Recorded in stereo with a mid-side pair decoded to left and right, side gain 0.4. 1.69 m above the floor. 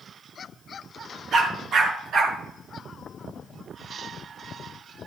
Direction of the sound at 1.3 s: 70° right.